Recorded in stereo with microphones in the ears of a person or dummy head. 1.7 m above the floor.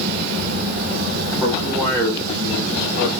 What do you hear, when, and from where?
1.4 s a man speaking: 5° left (ahead or behind), 1.6 m; by 3.1 s 50° left (ahead or behind), 1.2 m